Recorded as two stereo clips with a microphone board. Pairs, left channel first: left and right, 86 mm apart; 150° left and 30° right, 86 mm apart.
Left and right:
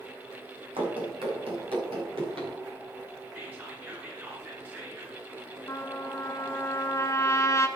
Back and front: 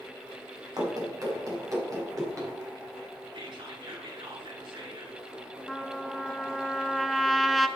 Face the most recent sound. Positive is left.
turn(degrees=60)